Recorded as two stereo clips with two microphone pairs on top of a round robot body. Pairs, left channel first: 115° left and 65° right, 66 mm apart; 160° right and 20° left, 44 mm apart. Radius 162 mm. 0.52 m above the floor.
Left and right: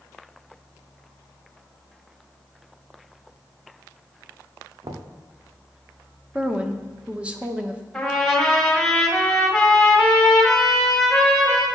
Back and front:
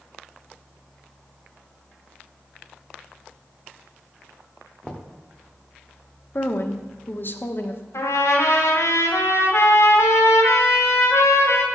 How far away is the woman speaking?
About 1.2 m.